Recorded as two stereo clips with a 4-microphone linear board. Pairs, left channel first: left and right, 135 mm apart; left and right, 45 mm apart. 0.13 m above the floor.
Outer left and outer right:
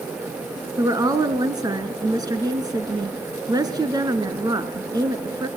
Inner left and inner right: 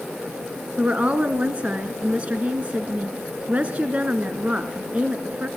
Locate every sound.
0.8 s a woman speaking: 30° right (ahead or behind), 1.5 m